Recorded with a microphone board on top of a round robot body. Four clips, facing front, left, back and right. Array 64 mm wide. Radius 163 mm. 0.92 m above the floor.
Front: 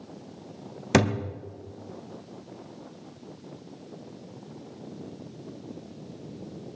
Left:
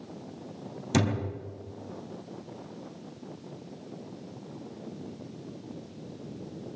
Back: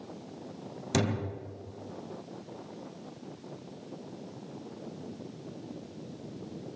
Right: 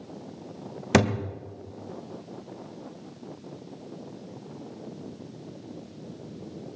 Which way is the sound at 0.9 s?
50° right.